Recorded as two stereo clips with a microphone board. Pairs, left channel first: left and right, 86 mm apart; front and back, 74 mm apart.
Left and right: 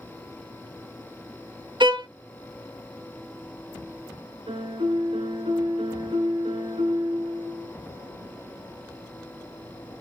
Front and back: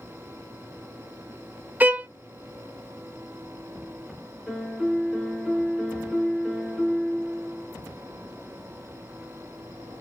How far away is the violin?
About 0.6 m.